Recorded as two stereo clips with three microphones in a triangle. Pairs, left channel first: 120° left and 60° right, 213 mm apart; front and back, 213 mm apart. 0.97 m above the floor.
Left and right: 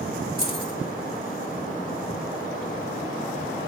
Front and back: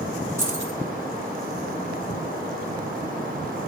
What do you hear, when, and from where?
0.4 s keys jangling: 100° right, 1.9 m